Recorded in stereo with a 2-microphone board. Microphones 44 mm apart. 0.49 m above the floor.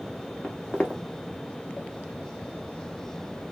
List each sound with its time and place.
0.4 s footsteps: 20° left (ahead or behind), 1.3 m